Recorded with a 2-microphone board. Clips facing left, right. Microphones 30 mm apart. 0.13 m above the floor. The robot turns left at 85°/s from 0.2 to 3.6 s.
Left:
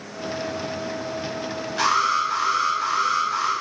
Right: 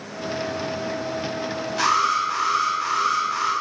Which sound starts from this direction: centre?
An alarm, at 1.8 s.